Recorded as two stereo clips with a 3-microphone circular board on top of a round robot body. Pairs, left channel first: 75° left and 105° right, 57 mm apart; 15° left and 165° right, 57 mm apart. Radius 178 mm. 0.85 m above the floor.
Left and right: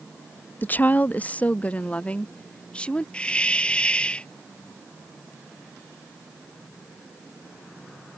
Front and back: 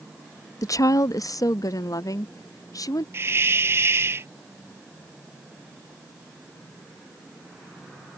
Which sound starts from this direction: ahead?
A woman speaking, at 0.6 s.